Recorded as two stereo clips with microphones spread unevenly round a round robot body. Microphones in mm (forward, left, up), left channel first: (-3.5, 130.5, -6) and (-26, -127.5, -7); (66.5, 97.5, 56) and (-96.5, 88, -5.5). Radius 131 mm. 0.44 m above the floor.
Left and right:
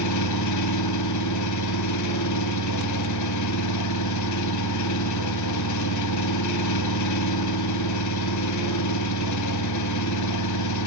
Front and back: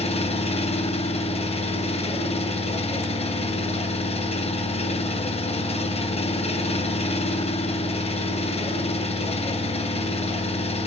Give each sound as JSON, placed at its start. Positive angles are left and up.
{"t": 0.0, "sound": "an engine running", "azimuth_deg": 65, "distance_m": 3.0}